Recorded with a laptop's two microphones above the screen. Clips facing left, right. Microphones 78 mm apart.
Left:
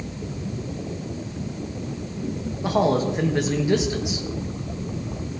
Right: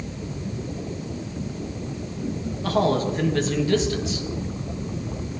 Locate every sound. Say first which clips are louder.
2.6 s a man speaking: left 1 dB; 20° left (ahead or behind), 1.0 m